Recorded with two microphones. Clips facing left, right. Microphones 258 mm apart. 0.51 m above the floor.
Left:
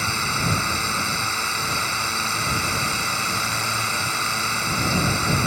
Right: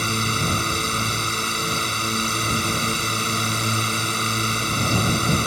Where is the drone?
40° right (ahead or behind).